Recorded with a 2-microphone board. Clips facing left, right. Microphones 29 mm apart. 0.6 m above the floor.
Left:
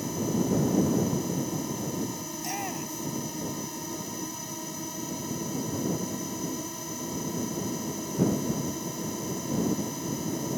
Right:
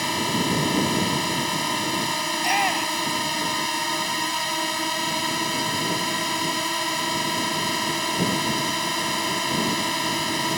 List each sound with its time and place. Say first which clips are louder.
0.0 s a drone: right 5 dB; 75° right (ahead or behind)
2.3 s a shout: right 15 dB; 55° right (ahead or behind)